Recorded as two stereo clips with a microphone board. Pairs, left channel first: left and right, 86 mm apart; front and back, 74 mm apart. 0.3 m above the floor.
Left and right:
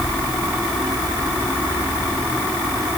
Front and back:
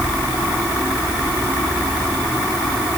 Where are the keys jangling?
No keys jangling in this recording.